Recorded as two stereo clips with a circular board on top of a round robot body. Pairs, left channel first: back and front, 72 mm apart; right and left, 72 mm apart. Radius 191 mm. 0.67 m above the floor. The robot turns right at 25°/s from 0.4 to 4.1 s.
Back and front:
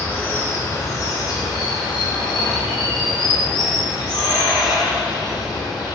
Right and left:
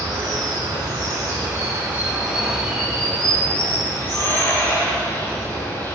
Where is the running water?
120° left, 3 m; by 6.0 s 150° right, 3 m.